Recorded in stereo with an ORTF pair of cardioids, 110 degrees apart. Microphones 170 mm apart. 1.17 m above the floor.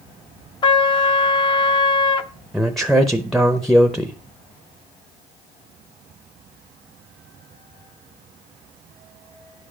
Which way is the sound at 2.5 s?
Straight ahead.